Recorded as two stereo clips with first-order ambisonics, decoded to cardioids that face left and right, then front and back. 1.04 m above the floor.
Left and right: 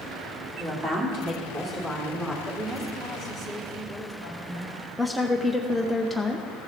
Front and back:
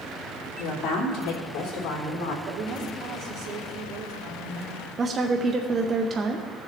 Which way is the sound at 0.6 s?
40° right.